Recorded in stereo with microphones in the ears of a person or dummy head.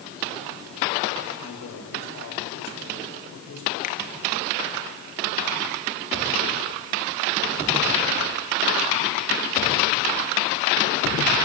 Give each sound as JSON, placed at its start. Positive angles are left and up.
{"t": 1.4, "sound": "a man speaking", "side_deg": 80, "distance_m": 6.0}
{"t": 3.8, "sound": "a finger snap", "side_deg": 40, "distance_m": 1.8}